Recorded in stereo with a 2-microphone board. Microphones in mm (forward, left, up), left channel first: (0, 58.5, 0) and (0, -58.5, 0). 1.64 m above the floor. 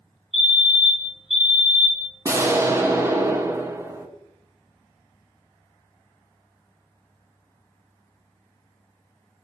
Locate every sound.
0.3 s a fire alarm: 65° right (ahead or behind), 5 m
2.2 s an explosion: 20° right (ahead or behind), 1.0 m